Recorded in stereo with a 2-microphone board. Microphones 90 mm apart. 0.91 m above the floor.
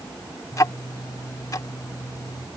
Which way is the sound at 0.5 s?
40° left (ahead or behind).